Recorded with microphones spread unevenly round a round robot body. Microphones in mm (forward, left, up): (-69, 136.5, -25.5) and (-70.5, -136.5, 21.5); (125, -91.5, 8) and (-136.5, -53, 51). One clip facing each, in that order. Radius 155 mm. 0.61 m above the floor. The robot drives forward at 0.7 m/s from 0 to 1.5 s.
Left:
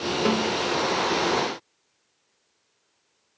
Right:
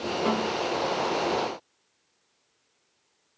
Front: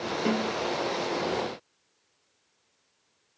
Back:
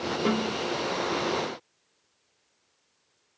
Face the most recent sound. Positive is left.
turn(degrees=115)